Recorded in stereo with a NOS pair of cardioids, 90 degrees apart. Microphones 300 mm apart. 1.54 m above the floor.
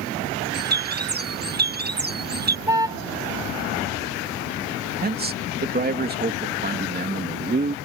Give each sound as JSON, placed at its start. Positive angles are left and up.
{"t": 0.5, "sound": "a bird", "azimuth_deg": -30}
{"t": 2.7, "sound": "a car horn", "azimuth_deg": -10}
{"t": 5.0, "sound": "a man speaking", "azimuth_deg": -30}